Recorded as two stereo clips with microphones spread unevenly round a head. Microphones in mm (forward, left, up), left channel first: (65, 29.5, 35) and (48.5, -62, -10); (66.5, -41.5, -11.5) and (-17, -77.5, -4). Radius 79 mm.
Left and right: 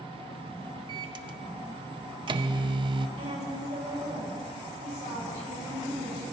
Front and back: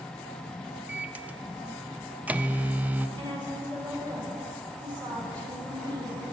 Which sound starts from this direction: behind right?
A woman speaking, at 3.2 s.